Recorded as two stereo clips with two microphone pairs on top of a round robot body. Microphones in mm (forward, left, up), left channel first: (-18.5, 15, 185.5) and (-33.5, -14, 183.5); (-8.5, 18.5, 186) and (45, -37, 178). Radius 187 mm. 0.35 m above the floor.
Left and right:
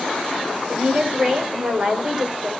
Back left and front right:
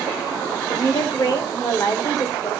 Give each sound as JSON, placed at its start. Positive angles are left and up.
{"t": 0.7, "sound": "a woman speaking", "azimuth_deg": 180, "distance_m": 3.0}